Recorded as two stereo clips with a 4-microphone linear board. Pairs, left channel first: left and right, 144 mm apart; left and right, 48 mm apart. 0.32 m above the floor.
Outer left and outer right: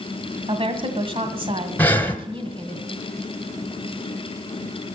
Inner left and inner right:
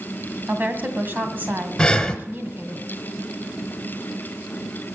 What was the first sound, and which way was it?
A woman speaking, 40° right (ahead or behind).